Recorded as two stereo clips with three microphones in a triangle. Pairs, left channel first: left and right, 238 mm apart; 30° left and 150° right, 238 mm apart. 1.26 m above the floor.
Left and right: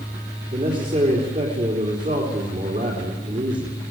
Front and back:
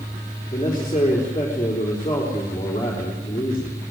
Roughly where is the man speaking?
Ahead right.